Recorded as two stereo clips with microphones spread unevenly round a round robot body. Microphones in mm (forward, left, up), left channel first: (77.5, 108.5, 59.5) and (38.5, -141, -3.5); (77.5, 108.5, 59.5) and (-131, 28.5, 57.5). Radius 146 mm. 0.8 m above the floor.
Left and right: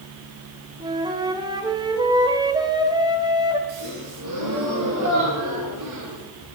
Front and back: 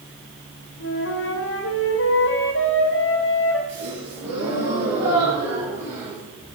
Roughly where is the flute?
Ahead right.